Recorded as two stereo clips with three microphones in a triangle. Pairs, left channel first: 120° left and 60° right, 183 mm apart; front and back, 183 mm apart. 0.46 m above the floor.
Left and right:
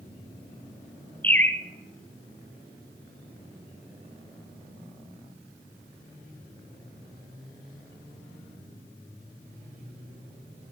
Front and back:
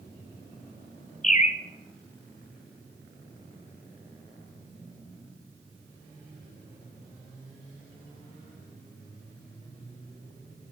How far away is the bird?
About 0.8 m.